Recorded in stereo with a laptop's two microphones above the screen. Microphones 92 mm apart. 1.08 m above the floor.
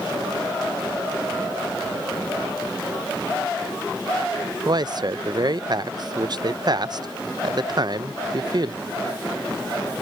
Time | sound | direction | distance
4.7 | a man speaking | 50° right (ahead or behind) | ?